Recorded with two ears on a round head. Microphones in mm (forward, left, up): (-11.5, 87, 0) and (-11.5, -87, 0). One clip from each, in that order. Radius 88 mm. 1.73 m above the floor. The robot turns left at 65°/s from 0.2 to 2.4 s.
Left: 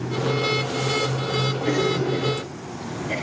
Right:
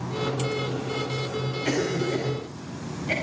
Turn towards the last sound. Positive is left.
turn(degrees=-75)  # may be behind; listen again after turning